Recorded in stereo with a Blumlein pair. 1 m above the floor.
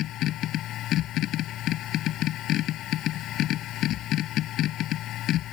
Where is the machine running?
35° left.